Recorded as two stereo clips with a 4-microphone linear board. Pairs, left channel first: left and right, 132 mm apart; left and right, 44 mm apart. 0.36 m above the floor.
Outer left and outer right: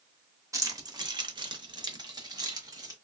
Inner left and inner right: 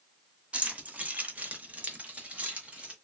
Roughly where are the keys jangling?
Right.